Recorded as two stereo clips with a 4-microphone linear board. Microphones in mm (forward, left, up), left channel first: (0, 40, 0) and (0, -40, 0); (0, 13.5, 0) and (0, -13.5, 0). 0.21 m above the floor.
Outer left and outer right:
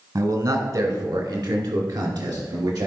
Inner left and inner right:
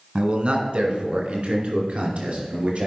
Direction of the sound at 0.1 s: 50° right (ahead or behind).